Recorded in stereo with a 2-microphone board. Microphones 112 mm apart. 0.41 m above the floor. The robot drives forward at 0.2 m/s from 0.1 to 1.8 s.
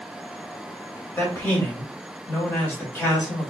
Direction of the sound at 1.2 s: 20° left (ahead or behind).